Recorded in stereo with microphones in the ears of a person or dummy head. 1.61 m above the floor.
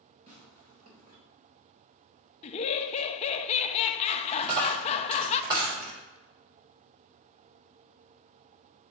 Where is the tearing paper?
30° right (ahead or behind), 3 m.